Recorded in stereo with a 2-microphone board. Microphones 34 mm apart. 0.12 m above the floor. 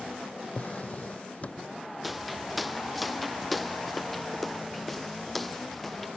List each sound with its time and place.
0.6 s a drawer: 45° left (ahead or behind)
2.0 s footsteps: 5° right (ahead or behind); by 6.1 s 5° left (ahead or behind)